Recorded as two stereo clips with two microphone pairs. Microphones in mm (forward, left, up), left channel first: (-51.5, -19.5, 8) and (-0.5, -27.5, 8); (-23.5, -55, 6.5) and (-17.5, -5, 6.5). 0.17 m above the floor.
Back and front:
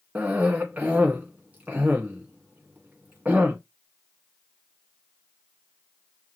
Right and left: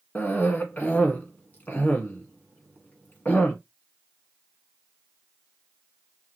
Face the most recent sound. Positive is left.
turn(degrees=-55)